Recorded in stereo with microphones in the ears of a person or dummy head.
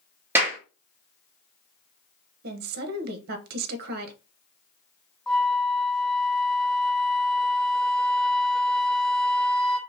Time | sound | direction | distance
0.3 | a clap | 10° right (ahead or behind) | 1.2 m
2.4 | a woman speaking | 50° right (ahead or behind) | 0.8 m
5.3 | a flute | 5° left (ahead or behind) | 0.7 m